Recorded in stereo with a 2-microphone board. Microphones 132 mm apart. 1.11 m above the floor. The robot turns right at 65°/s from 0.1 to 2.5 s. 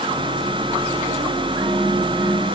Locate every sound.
Only background noise.